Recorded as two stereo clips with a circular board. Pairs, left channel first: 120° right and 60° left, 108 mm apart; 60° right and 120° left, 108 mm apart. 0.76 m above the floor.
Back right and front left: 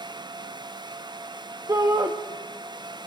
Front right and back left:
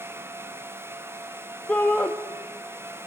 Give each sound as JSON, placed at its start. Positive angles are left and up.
{"t": 1.7, "sound": "a shout", "azimuth_deg": 10, "distance_m": 0.9}